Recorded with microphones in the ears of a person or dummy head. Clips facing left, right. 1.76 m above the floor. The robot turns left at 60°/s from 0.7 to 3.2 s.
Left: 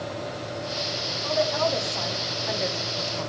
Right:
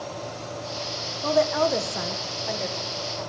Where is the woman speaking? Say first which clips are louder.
Right 3 dB; 70° right (ahead or behind), 1.7 m; by 3.3 s 50° left (ahead or behind), 1.7 m.